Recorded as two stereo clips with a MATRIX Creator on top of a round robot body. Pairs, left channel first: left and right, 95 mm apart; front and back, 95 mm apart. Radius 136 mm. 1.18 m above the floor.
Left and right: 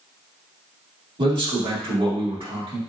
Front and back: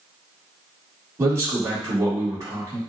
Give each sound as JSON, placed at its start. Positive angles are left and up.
{"t": 1.2, "sound": "a man speaking", "azimuth_deg": -120, "distance_m": 1.8}